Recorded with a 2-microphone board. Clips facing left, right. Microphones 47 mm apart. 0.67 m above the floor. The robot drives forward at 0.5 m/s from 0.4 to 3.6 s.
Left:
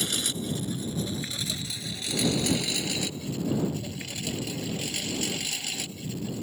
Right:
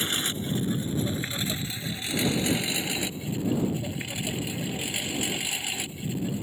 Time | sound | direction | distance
0.0 | a lawn mower | 35° right (ahead or behind) | ?